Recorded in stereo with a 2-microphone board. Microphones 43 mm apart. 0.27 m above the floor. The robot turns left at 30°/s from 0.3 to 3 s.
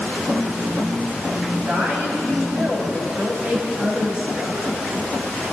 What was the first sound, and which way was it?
A woman speaking, 70° right.